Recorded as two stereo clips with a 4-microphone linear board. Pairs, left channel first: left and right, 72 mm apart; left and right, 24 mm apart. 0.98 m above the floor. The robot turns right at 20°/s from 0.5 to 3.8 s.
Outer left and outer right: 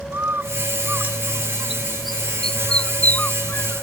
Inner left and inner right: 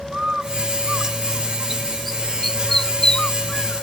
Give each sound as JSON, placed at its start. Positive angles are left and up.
{"t": 0.1, "sound": "a bird", "side_deg": -30}